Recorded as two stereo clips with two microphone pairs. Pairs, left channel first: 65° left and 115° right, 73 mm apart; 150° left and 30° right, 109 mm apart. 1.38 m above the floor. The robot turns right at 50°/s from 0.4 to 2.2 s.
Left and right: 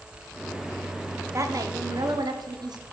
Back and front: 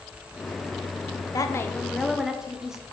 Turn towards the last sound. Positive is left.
turn(degrees=-115)